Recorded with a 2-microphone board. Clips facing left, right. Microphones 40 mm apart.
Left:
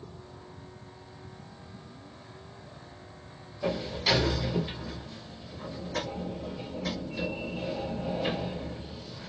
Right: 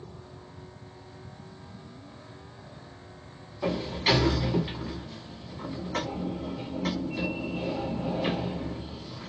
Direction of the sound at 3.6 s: 45° right (ahead or behind).